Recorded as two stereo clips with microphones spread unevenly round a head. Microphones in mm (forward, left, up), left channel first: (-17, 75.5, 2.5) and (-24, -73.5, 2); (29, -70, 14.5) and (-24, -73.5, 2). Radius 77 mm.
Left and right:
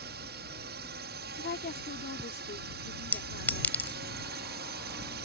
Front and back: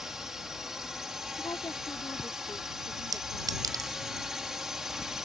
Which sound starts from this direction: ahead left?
A woman speaking, at 1.4 s.